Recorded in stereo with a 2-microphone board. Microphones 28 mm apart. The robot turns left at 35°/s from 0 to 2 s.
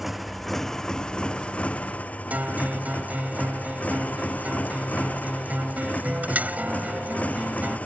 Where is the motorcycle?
170° right; by 7.9 s 120° left.